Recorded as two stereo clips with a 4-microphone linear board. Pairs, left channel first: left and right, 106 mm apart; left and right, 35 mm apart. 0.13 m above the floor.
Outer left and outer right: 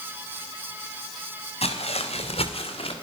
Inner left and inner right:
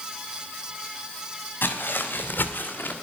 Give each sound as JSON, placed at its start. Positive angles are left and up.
{"t": 1.6, "sound": "footsteps", "side_deg": 70, "distance_m": 3.0}